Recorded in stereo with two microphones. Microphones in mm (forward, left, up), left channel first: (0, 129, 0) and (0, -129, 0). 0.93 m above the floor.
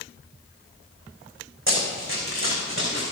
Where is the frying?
I don't hear frying.